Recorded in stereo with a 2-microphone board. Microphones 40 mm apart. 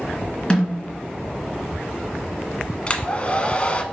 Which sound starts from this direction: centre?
A snare drum, at 0.5 s.